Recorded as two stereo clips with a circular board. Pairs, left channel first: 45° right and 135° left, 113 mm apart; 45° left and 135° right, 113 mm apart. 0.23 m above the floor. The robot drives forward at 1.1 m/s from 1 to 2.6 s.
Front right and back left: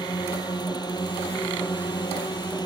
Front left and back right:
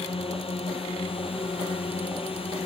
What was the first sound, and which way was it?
A drone, 10° left.